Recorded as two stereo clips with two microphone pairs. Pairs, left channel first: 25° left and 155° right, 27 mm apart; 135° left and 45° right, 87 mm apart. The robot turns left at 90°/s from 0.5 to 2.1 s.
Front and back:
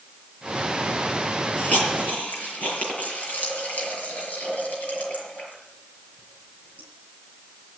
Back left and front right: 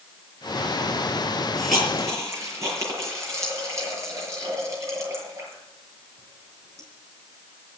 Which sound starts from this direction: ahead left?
A hiss, at 1.6 s.